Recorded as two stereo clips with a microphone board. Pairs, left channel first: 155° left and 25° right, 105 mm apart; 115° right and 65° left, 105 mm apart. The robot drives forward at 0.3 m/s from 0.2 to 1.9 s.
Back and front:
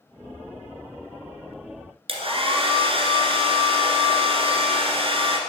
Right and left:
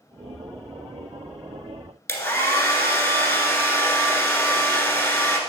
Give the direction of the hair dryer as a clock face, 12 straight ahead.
2 o'clock.